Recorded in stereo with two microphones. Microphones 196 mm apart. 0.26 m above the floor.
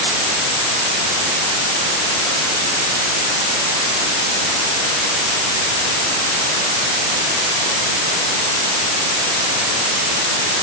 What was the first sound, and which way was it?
Only background noise.